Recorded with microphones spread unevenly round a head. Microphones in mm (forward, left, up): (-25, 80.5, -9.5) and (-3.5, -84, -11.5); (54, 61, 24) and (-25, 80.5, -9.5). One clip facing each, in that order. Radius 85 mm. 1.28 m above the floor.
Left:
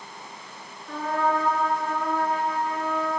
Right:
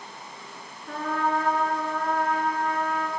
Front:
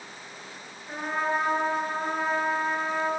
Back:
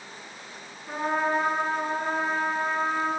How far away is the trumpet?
About 9.5 m.